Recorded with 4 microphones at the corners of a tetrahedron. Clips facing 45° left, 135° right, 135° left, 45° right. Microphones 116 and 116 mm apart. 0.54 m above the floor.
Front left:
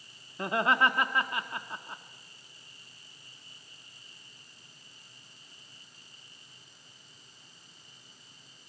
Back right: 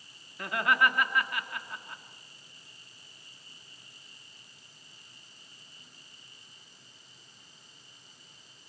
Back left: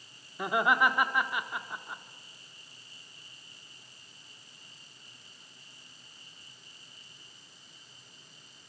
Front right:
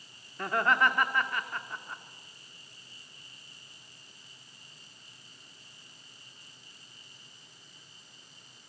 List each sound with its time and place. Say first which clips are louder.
0.4 s laughter: front left 1 dB, back left 1 dB; 65° left, 1.0 m